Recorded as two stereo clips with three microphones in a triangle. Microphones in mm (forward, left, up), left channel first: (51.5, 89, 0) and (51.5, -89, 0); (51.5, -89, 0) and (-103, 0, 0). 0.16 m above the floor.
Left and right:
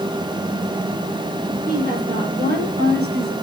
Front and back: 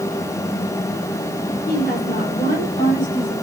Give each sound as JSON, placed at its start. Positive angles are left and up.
{"t": 1.7, "sound": "a woman speaking", "azimuth_deg": -55, "distance_m": 4.0}